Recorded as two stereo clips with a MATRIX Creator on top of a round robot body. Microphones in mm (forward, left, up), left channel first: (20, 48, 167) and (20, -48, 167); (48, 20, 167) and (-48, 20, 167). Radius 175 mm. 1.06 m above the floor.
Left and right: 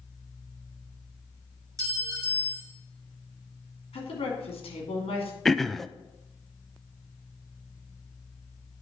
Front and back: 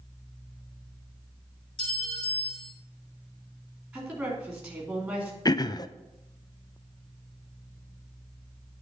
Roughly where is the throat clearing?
Ahead.